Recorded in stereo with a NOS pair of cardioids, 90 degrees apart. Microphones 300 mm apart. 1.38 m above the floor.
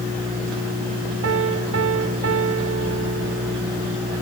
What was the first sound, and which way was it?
A piano, 50° right.